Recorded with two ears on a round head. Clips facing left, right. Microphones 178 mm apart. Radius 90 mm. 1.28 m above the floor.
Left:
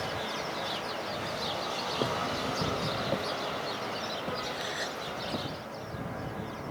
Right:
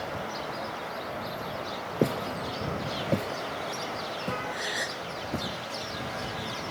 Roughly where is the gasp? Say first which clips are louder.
Right 1 dB; right.